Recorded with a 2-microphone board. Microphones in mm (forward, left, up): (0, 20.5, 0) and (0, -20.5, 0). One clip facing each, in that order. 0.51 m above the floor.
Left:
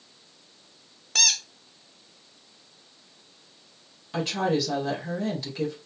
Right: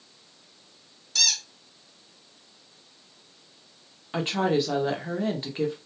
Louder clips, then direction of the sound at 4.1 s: Right 1 dB; 30° right (ahead or behind).